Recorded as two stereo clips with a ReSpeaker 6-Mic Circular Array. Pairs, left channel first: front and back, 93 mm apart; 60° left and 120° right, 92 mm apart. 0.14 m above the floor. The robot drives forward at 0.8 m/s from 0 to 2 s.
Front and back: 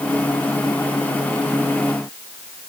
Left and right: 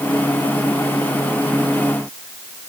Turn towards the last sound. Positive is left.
No sound to turn to.